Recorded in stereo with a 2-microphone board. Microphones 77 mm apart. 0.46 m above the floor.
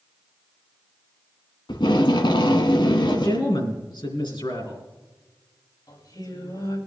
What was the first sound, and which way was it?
Tape being pulled, 85° left.